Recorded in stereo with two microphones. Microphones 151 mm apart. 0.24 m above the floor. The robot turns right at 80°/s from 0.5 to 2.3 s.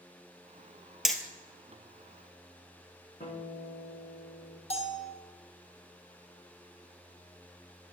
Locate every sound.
1.1 s hammering: 5° right (ahead or behind), 1.2 m; by 1.2 s 10° left (ahead or behind), 1.2 m
3.2 s a guitar: 70° left (ahead or behind), 8.5 m
4.7 s a bell: 45° left (ahead or behind), 2 m